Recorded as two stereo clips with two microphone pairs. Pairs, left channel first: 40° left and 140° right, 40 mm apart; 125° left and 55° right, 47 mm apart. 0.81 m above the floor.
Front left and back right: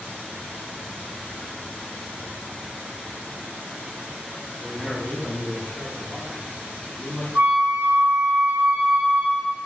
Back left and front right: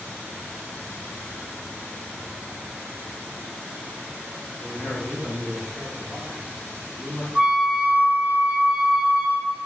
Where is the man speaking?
160° right, 0.7 m; by 7.2 s 20° left, 1.3 m.